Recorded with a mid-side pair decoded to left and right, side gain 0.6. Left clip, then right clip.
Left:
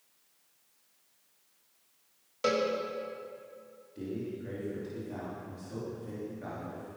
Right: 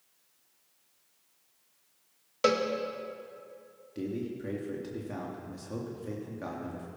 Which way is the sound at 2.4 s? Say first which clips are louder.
Right 2 dB; 35° right.